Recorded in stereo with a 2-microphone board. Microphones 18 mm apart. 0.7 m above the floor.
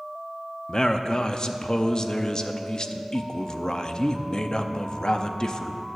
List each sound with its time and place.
0.7 s a man speaking: 45° left (ahead or behind), 0.6 m